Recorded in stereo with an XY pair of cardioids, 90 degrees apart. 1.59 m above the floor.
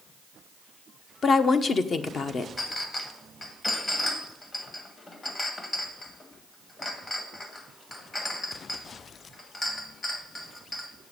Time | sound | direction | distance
1.2 | a woman speaking | 50° left | 0.9 m
2.6 | a clink | 35° left | 1.8 m